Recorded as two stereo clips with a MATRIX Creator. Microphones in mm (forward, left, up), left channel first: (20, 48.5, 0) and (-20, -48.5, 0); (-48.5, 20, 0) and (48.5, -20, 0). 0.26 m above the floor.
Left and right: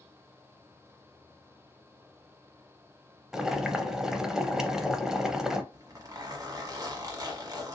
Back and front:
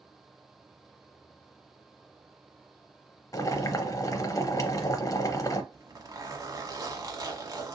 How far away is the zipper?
About 1.0 m.